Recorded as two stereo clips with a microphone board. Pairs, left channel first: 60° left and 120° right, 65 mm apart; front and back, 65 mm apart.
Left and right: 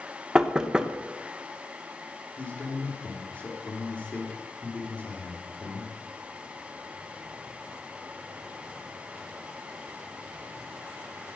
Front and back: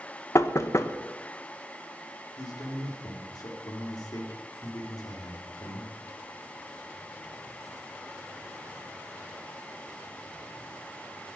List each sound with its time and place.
0.3 s knocking: 40° right, 0.9 m
2.4 s a man speaking: 5° right, 4 m